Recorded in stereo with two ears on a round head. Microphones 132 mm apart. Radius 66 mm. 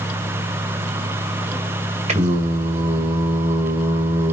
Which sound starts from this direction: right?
Singing, at 2.1 s.